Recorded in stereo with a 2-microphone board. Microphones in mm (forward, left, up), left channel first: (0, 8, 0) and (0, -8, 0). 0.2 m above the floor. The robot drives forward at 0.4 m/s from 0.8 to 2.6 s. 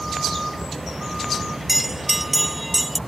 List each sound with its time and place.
0.0 s a vehicle: 5° right (ahead or behind)
1.7 s a bell: 10° right (ahead or behind); by 3.0 s 5° right (ahead or behind)